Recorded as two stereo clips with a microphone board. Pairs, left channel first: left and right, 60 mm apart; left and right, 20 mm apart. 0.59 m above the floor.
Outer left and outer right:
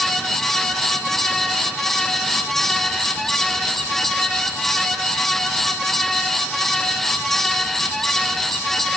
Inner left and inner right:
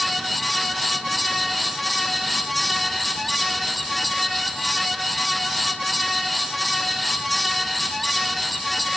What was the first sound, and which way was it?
Only background noise.